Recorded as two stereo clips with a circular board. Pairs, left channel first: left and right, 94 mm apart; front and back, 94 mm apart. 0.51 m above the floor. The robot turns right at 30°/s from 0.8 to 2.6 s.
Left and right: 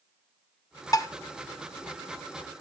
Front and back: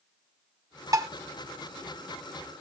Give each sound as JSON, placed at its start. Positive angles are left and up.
{"t": 0.9, "sound": "dishes clattering", "azimuth_deg": 135, "distance_m": 0.8}